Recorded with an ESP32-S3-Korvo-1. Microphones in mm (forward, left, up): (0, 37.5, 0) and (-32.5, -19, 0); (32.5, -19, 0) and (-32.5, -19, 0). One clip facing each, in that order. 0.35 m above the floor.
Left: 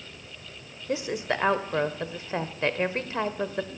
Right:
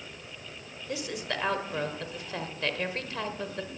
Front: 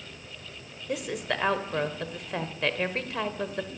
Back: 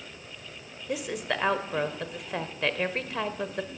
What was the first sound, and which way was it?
A woman speaking, 90° left.